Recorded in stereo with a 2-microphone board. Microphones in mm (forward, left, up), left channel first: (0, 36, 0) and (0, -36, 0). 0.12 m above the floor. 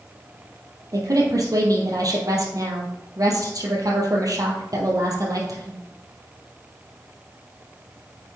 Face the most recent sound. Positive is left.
turn(degrees=-55)  # may be behind; listen again after turning